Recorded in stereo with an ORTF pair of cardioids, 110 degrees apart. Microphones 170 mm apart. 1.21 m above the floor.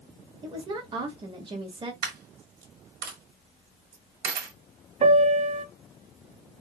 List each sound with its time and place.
0.4 s a woman speaking: 30° right, 1.5 m
2.0 s a dropped coin: 60° right, 1.7 m
5.0 s a piano: 45° right, 0.7 m